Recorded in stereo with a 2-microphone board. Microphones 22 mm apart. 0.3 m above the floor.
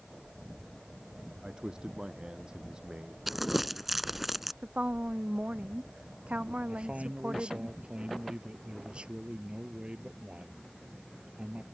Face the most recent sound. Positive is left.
turn(degrees=-45)  # may be behind; listen again after turning